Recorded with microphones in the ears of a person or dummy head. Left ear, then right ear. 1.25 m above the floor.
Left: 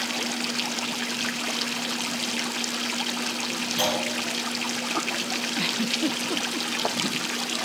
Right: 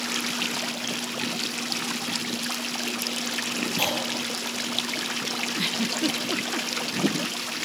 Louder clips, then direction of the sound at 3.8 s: Left 2 dB; 15° left (ahead or behind).